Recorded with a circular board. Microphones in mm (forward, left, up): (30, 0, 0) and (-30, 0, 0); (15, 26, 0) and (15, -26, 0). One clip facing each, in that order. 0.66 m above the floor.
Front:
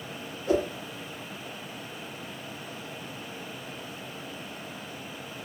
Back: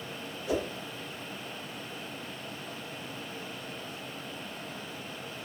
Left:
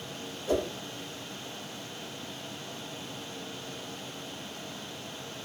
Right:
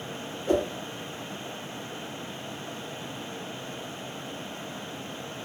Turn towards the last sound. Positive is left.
turn(degrees=-50)